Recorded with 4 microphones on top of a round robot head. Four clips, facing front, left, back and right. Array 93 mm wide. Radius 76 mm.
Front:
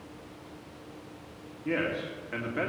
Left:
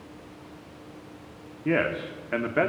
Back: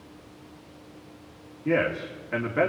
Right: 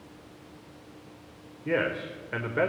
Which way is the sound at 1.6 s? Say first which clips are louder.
Left 2 dB, back 5 dB; 115° left.